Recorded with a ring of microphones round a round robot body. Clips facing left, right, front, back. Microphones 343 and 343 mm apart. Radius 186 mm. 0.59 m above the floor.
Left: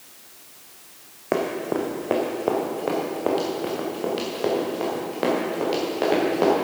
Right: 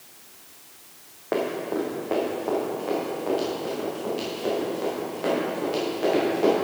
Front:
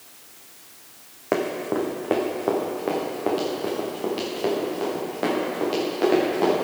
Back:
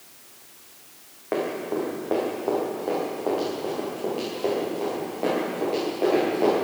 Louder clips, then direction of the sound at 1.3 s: Left 2 dB, front 2 dB; 40° left.